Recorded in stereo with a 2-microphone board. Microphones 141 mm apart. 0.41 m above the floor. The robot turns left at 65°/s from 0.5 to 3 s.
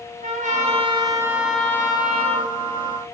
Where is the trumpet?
115° right, 2.5 m; by 2.5 s 120° left, 2.5 m.